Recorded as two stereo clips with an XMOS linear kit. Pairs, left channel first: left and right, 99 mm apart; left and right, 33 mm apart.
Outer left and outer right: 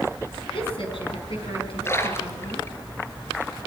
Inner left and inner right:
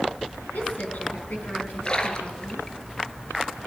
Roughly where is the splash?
Left.